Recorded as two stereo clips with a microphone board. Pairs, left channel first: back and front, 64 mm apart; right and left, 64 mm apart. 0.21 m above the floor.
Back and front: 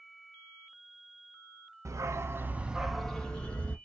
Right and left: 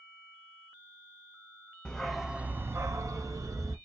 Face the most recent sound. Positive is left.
turn(degrees=115)